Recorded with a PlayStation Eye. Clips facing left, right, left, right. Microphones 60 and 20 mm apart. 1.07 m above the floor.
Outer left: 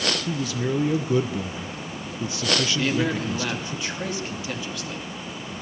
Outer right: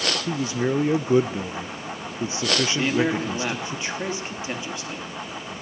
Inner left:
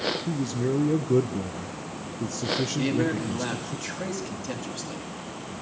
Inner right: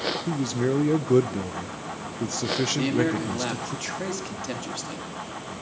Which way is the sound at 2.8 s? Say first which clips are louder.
Outer right 2 dB, inner right 1 dB; 25° right (ahead or behind).